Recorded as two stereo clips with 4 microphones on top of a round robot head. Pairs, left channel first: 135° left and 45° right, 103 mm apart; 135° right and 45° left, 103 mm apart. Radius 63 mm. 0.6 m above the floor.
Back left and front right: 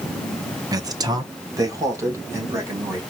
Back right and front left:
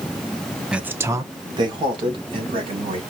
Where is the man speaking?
30° right, 0.8 m; by 3.0 s 15° left, 3 m.